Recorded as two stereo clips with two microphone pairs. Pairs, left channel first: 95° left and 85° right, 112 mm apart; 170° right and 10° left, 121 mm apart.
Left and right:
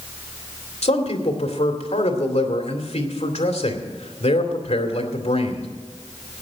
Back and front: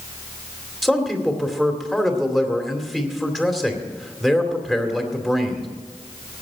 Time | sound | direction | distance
0.8 | a man speaking | 100° left | 2.5 m